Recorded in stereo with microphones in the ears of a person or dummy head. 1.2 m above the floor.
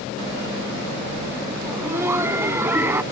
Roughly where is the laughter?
Centre.